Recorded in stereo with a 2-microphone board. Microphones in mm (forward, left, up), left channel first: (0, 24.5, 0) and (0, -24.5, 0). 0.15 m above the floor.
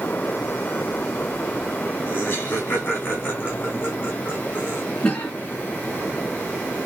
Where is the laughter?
40° left (ahead or behind), 2 m.